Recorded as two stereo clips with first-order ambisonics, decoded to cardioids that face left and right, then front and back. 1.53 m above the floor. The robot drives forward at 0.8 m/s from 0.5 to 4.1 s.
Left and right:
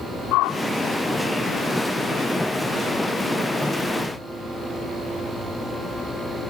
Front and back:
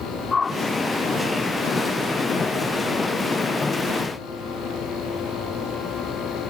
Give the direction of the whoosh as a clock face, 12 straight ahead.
10 o'clock.